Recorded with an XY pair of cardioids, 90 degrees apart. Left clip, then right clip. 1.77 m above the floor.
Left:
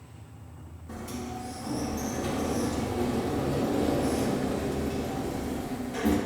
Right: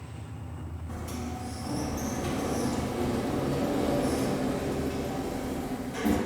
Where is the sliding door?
15° left, 0.9 m.